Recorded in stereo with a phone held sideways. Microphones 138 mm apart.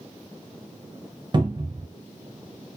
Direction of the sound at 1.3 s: 35° right (ahead or behind).